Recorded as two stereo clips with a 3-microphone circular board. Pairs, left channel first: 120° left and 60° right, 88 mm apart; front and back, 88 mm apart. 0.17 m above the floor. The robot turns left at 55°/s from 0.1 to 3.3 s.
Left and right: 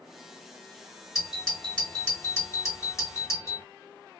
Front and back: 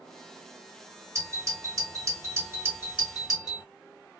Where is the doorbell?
140° right, 2.5 m; by 3.6 s 100° left, 2.5 m.